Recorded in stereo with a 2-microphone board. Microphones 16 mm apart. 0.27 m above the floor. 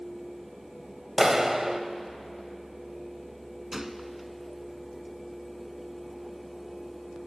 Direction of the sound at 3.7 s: 25° right (ahead or behind).